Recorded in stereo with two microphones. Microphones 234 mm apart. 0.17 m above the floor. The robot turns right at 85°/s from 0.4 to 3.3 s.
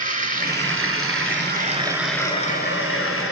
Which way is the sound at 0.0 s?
140° right.